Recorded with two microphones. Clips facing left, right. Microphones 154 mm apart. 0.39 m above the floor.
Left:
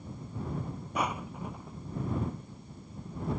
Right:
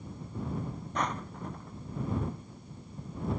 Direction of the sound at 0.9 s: 10° left (ahead or behind).